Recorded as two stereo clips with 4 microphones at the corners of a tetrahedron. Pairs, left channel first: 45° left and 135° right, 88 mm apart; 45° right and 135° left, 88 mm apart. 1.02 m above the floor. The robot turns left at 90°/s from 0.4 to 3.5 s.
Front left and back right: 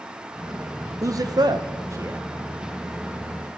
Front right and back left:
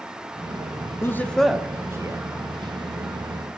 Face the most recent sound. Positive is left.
turn(degrees=40)